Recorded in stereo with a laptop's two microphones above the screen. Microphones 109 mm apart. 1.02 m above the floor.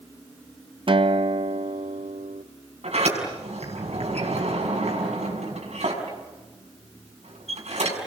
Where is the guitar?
50° right (ahead or behind), 1.1 m.